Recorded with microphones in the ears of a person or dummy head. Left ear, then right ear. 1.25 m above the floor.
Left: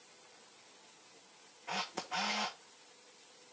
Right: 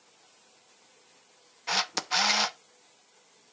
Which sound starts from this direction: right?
A camera shutter, at 1.7 s.